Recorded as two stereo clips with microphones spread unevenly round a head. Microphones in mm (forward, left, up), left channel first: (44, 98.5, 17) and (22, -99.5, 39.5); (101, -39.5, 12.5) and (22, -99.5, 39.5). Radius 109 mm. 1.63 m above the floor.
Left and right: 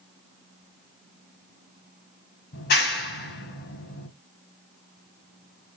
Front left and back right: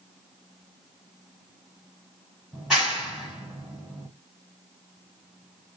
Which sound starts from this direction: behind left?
A clap, at 2.5 s.